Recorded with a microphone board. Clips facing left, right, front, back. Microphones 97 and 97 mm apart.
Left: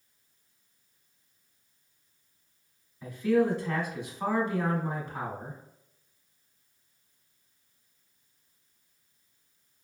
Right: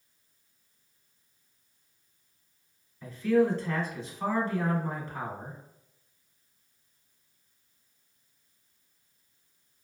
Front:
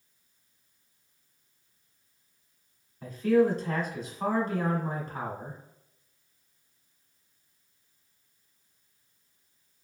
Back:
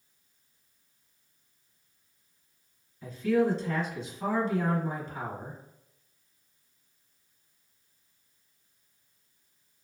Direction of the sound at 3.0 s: 20° left.